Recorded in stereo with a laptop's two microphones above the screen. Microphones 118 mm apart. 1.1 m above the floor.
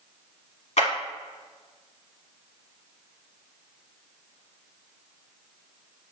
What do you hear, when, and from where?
0.8 s a clap: 65° left (ahead or behind), 1.5 m